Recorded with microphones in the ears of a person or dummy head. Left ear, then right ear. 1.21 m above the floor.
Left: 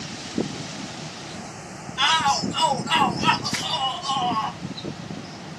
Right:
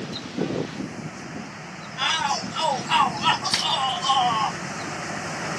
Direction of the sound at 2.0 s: 20° left (ahead or behind).